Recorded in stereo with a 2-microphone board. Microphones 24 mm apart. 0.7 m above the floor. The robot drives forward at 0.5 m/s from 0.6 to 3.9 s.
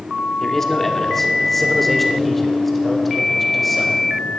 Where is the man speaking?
15° left (ahead or behind), 1.3 m; by 4.0 s 5° left (ahead or behind), 3 m.